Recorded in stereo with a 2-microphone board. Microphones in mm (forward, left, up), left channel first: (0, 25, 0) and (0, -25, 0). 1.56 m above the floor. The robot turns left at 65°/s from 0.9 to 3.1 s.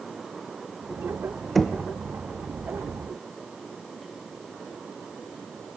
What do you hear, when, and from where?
1.6 s knocking: centre (ahead or behind), 0.9 m; by 1.8 s 15° left (ahead or behind), 0.9 m